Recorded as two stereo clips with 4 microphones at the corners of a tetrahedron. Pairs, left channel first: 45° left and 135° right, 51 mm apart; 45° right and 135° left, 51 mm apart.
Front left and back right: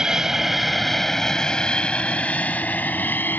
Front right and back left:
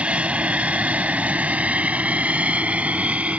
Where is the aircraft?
165° left; by 3.4 s 80° left.